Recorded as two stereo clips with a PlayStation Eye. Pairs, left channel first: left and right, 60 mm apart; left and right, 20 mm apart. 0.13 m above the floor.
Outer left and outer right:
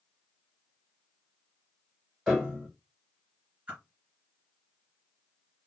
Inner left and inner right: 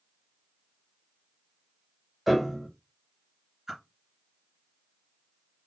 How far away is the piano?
About 4 m.